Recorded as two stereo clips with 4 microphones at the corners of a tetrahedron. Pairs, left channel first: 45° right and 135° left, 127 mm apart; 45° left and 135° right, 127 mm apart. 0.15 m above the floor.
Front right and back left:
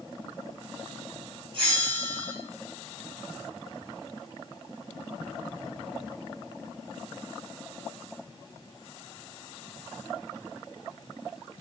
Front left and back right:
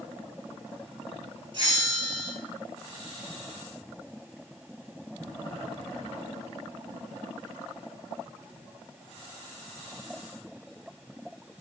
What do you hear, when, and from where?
1.5 s a bell: straight behind, 1.2 m